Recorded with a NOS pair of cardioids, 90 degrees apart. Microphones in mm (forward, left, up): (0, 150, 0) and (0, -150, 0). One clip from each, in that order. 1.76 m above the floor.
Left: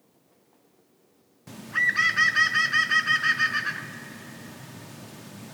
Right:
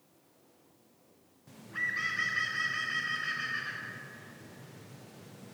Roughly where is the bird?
Ahead left.